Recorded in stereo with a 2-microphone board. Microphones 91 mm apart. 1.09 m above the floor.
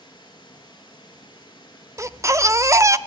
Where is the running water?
50° left (ahead or behind), 6 m.